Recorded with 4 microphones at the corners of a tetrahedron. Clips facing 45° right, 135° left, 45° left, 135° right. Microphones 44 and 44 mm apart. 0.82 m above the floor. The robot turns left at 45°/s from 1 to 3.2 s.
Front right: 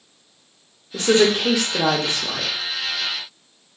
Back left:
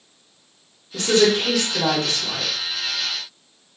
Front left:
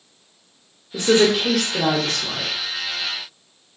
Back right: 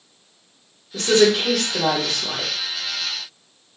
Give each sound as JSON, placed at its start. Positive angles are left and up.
{"t": 0.9, "sound": "a woman speaking", "azimuth_deg": -10, "distance_m": 1.1}